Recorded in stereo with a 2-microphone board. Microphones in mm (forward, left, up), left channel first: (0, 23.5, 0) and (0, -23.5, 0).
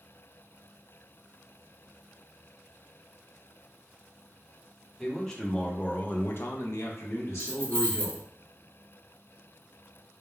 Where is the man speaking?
5° left (ahead or behind), 0.9 m; by 8.2 s 50° left (ahead or behind), 1.0 m.